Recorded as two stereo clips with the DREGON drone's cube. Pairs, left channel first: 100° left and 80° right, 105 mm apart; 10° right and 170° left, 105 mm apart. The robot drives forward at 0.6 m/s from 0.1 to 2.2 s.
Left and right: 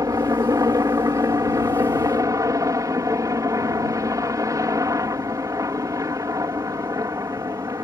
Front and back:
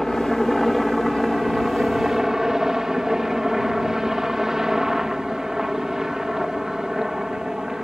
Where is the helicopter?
95° right; by 7.8 s 110° right.